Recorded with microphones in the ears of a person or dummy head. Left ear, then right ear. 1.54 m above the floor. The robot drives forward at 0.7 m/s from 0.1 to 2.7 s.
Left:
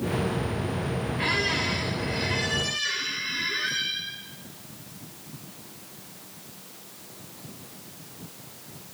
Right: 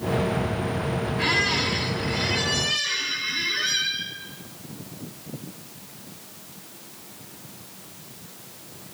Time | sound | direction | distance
1.2 | a squeak | centre (ahead or behind) | 0.5 m